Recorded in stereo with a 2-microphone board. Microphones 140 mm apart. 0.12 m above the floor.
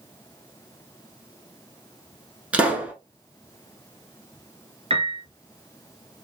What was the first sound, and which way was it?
A pop, 10° right (ahead or behind).